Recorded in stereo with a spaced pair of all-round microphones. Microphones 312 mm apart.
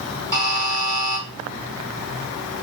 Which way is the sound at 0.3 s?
65° right (ahead or behind).